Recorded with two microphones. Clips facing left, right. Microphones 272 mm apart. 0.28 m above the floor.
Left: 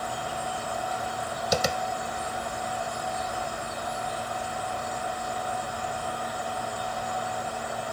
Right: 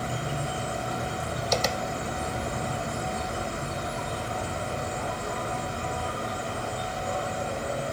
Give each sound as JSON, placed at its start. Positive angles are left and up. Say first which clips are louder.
{"t": 0.0, "sound": "an insect", "louder": "right 2 dB", "side_deg": -70}
{"t": 1.5, "sound": "tapping", "louder": "left 1 dB", "side_deg": 10}